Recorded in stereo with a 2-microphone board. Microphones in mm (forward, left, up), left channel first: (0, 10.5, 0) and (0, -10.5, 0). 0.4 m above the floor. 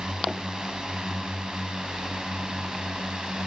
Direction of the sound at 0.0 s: 35° right (ahead or behind).